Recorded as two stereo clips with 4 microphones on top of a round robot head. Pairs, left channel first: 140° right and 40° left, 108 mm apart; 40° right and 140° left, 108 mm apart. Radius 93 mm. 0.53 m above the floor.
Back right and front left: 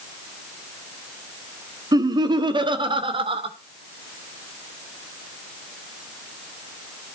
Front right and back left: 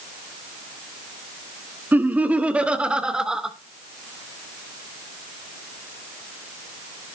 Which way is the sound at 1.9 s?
75° left.